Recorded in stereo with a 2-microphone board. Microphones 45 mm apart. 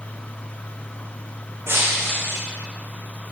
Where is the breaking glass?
60° right (ahead or behind), 5 m.